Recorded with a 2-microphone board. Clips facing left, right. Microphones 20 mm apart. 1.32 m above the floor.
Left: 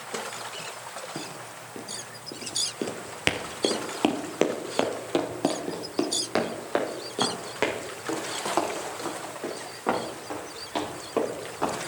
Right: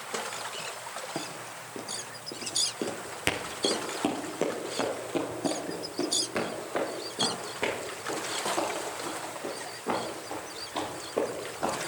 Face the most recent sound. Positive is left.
turn(degrees=70)  # may be behind; listen again after turning